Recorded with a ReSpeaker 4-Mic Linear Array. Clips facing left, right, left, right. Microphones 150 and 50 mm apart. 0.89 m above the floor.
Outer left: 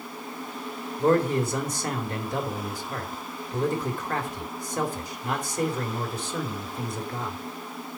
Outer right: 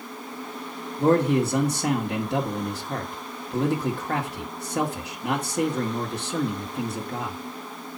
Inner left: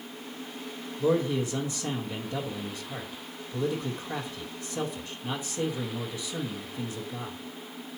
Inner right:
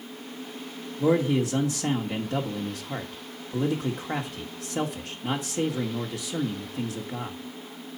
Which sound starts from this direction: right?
A man speaking, at 1.0 s.